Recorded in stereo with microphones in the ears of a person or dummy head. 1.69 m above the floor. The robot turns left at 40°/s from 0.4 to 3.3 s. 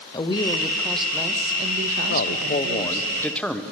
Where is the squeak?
I don't hear a squeak.